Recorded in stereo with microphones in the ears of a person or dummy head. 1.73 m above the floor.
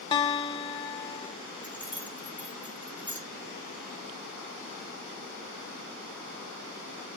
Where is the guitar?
25° left (ahead or behind), 1.2 m.